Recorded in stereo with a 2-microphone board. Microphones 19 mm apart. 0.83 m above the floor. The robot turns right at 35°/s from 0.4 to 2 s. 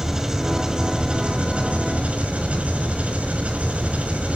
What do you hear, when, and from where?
0.0 s an engine running: 165° right, 4.5 m; by 4.4 s 110° right, 4.5 m